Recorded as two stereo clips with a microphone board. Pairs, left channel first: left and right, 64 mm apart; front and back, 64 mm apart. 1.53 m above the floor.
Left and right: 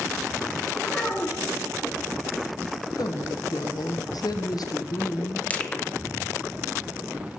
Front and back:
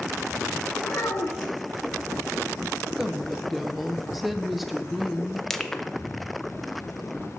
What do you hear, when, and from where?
0.8 s a child speaking: 25° left, 1.0 m
3.0 s a woman speaking: 90° left, 0.7 m
5.5 s crushing: 70° left, 0.5 m